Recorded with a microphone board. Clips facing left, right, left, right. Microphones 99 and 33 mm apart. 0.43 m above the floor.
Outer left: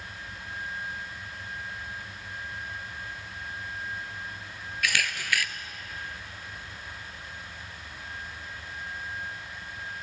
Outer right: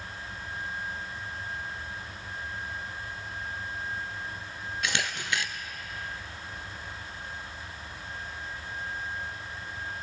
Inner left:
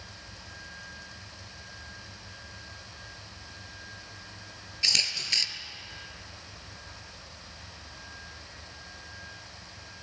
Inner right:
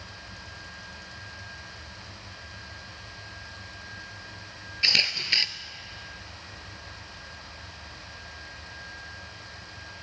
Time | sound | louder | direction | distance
4.8 | a camera shutter | outer left 2 dB, inner right 4 dB | 25° right (ahead or behind) | 1.1 m